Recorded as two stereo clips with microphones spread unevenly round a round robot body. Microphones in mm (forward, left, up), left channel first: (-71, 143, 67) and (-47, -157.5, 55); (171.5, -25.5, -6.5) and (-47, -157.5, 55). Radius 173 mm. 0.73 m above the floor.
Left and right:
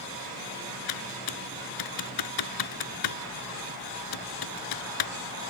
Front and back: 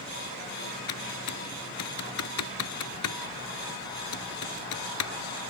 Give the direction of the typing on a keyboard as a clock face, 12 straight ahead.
10 o'clock.